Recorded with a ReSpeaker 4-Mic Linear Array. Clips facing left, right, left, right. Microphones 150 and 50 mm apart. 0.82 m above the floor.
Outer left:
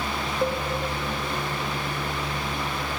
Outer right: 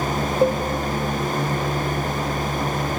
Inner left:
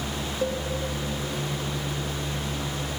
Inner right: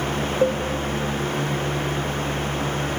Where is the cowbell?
30° right (ahead or behind), 2.5 m.